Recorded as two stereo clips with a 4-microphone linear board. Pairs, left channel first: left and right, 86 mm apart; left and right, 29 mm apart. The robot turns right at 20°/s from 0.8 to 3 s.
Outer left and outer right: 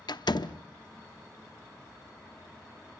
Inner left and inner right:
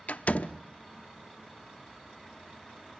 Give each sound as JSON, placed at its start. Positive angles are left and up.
{"t": 0.1, "sound": "a door slam", "side_deg": 60, "distance_m": 0.7}